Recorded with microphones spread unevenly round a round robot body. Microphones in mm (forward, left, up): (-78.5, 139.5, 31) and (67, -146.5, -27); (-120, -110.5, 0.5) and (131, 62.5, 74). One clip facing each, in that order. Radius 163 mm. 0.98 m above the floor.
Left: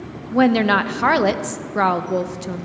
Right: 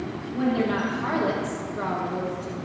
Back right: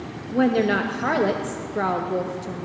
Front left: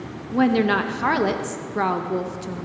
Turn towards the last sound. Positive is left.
turn(degrees=115)